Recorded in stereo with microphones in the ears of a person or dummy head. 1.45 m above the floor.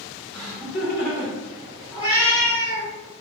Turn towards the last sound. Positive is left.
turn(degrees=35)  # may be behind; listen again after turning